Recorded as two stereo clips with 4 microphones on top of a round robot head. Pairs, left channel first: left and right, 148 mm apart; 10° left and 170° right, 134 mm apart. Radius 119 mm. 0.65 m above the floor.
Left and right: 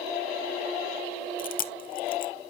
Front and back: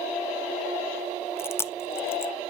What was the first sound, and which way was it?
Chewing, 80° left.